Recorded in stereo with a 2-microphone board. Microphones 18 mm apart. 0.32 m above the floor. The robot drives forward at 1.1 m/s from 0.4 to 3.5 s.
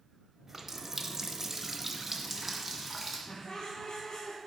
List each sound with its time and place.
0.5 s a running tap: 15° right (ahead or behind), 1.0 m; by 3.2 s 5° right (ahead or behind), 2.5 m
3.3 s laughter: 60° left (ahead or behind), 2.5 m